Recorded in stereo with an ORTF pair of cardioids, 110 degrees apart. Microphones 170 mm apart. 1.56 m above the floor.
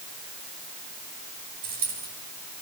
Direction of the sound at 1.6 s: 70° right.